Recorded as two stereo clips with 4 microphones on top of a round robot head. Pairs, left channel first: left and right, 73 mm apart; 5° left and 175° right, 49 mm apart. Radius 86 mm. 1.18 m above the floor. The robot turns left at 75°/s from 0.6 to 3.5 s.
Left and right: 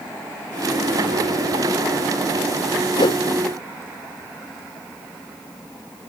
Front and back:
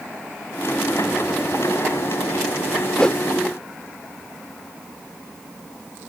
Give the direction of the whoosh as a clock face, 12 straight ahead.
9 o'clock.